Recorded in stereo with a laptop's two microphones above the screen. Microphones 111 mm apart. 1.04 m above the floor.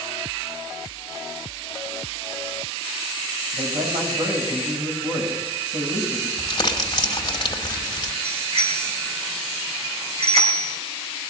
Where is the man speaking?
85° right, 6 m.